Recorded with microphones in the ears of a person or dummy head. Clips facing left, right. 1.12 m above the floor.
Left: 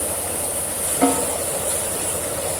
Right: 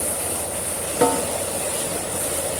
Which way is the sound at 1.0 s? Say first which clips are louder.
Left 1 dB; 85° right.